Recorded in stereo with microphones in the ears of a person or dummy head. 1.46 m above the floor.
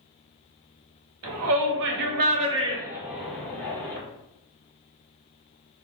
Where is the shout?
80° right, 0.9 m; by 4.0 s 15° left (ahead or behind), 1.1 m.